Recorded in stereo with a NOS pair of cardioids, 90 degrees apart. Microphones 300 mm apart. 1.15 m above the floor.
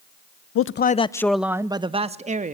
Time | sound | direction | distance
0.6 | a man speaking | 55° left | 0.7 m